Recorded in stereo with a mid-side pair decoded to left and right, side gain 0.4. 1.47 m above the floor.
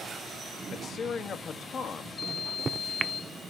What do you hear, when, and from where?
0.7 s a man speaking: 60° left, 1.9 m
2.2 s a microwave: 35° right, 0.8 m